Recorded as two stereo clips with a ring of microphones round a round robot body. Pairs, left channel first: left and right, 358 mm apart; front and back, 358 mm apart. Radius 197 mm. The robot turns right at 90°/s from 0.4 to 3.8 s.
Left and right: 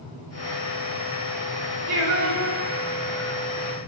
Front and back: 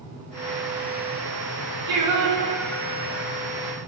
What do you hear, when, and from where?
1.9 s singing: 160° right, 5 m; by 3.4 s 20° right, 5 m